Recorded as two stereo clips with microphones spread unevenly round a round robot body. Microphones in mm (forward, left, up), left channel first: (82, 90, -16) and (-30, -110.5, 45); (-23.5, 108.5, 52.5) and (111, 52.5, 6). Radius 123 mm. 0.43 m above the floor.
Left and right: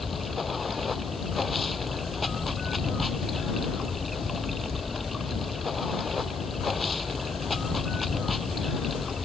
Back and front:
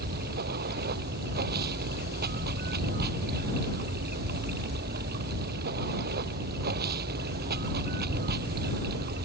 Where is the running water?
30° right.